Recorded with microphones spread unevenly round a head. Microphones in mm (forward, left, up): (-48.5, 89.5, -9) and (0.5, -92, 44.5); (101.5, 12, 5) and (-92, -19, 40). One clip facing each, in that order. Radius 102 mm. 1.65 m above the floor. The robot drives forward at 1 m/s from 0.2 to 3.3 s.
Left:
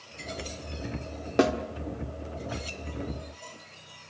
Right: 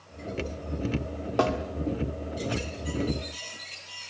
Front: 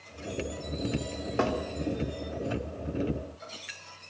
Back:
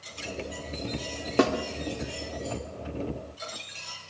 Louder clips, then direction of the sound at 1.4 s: Left 2 dB, back 5 dB; straight behind.